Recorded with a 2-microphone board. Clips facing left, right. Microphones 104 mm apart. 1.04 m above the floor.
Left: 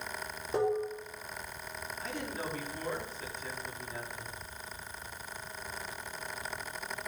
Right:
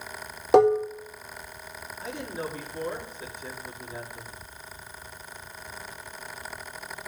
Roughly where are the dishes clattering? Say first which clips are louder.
Right 12 dB; right.